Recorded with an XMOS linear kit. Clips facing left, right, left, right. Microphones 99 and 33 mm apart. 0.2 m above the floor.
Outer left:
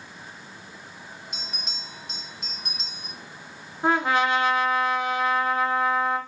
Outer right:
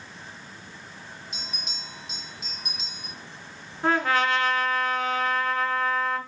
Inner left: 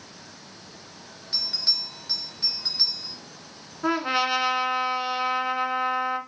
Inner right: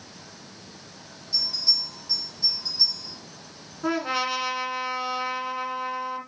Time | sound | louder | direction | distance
1.3 | a bell | outer left 1 dB, inner right 1 dB | 65° left (ahead or behind) | 3 m
3.8 | a trumpet | outer left 1 dB, inner left 2 dB | 20° left (ahead or behind) | 1.7 m